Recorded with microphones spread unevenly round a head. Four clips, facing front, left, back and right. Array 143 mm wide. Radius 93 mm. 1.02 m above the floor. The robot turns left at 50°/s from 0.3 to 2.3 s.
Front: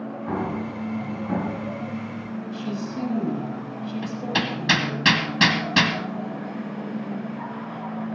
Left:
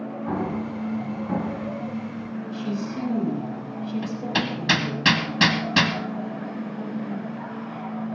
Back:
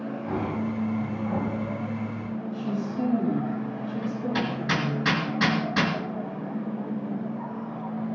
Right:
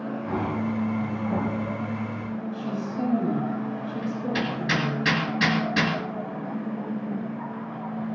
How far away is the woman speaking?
About 6 m.